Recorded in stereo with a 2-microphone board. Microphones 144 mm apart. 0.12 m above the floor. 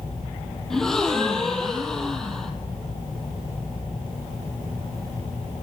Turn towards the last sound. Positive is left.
turn(degrees=5)  # may be behind; listen again after turning